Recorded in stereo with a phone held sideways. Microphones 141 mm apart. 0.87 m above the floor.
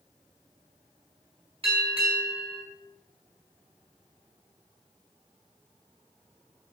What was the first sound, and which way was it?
A bell, 40° right (ahead or behind).